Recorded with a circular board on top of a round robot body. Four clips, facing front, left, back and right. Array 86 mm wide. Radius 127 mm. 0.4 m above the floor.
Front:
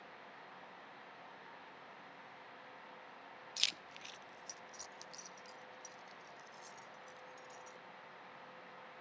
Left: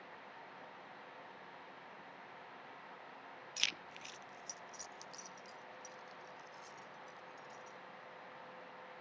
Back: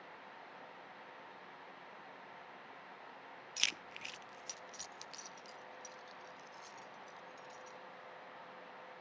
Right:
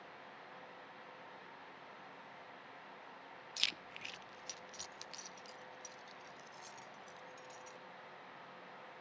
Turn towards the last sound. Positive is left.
turn(degrees=-115)